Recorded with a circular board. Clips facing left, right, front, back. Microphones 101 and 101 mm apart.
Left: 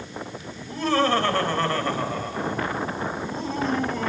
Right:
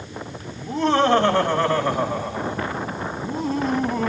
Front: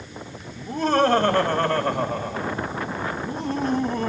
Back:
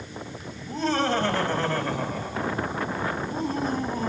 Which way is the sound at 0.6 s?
25° right.